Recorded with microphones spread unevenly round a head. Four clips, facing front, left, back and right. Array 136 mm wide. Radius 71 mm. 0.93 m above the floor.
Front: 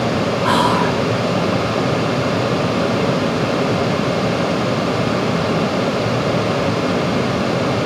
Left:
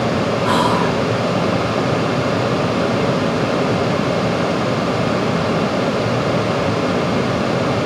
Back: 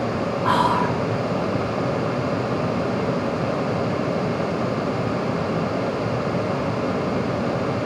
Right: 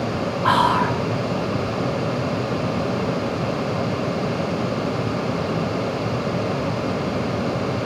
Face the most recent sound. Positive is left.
turn(degrees=-65)